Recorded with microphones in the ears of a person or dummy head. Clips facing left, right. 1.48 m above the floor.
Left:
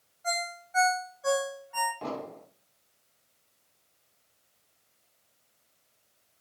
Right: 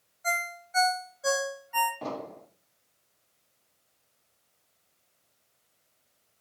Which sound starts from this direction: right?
A ringtone, at 0.2 s.